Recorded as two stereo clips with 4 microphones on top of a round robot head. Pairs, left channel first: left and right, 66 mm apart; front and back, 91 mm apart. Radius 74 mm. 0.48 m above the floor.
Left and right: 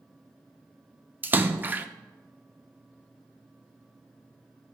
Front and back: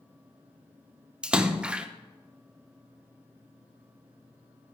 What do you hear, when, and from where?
1.2 s a splash: 115° right, 0.8 m